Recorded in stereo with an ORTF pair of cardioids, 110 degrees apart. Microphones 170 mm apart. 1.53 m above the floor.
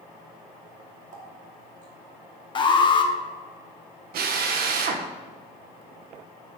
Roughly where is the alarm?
Ahead left.